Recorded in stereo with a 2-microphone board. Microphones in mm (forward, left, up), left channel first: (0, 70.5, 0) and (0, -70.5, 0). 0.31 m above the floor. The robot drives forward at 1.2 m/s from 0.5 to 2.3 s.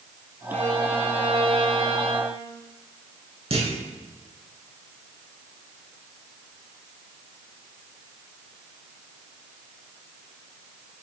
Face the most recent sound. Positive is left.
turn(degrees=-50)  # may be behind; listen again after turning